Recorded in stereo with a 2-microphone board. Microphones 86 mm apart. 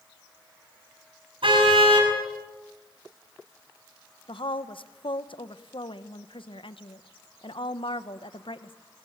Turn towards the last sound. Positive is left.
turn(degrees=75)  # may be behind; listen again after turning